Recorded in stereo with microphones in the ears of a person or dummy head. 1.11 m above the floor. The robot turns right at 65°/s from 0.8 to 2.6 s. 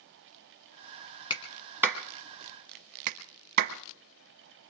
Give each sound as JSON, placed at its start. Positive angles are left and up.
{"t": 1.3, "sound": "a clap", "side_deg": 25, "distance_m": 1.0}